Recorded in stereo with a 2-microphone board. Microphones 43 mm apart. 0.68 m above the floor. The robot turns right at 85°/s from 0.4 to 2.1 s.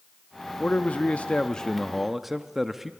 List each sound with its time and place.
0.6 s a man speaking: 60° left, 0.6 m; by 2.9 s 170° right, 0.6 m